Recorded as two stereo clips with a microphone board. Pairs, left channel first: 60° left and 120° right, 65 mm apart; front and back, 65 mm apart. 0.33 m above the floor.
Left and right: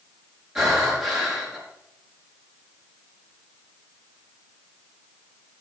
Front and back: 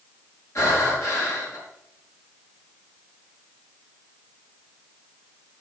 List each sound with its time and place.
0.6 s breathing: 40° right, 5 m